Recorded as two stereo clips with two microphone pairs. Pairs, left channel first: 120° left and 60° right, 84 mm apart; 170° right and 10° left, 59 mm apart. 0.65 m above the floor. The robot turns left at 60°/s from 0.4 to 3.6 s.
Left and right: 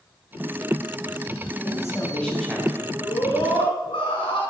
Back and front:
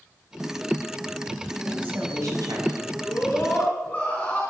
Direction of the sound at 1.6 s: 80° left.